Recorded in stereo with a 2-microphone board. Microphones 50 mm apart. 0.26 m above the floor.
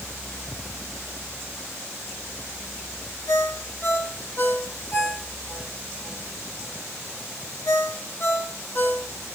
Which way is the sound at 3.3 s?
45° left (ahead or behind).